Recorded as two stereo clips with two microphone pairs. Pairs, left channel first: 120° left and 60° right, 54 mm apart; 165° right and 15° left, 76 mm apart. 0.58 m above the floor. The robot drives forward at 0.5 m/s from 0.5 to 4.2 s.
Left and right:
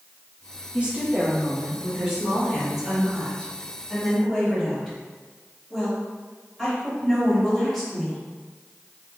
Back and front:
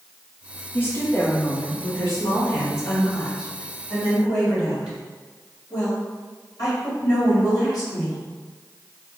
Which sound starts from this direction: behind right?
A woman speaking, at 0.7 s.